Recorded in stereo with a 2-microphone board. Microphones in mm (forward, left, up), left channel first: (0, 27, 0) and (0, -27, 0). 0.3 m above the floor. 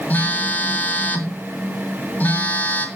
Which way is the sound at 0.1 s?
30° left (ahead or behind).